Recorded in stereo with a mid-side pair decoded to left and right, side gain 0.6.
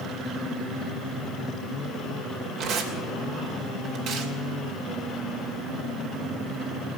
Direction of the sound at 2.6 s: 65° right.